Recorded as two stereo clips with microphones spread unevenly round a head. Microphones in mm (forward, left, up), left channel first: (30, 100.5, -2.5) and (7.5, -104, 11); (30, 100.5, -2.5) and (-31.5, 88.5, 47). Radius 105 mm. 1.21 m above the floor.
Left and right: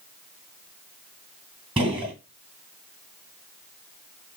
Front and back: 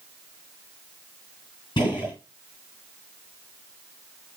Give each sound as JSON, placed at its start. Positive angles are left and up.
{"t": 1.8, "sound": "a gunshot", "azimuth_deg": -35, "distance_m": 2.5}